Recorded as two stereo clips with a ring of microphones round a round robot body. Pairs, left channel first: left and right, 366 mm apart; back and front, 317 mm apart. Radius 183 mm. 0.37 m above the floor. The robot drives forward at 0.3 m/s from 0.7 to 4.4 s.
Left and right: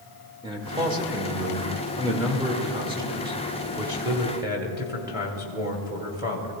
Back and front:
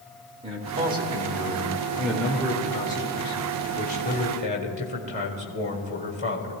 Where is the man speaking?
35° right, 1.4 m; by 6.5 s 160° right, 1.5 m.